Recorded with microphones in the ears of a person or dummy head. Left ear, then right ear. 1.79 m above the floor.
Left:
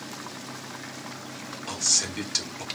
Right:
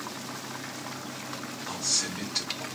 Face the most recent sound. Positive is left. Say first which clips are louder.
# left 4 dB
turn(degrees=70)  # may be behind; listen again after turning